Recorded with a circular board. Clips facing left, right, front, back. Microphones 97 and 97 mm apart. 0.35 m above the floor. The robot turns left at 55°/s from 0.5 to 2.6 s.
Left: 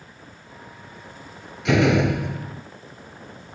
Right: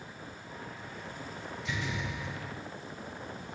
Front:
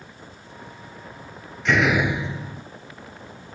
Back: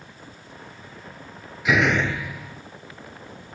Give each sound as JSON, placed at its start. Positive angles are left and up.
{"t": 1.6, "sound": "a door slam", "azimuth_deg": 100}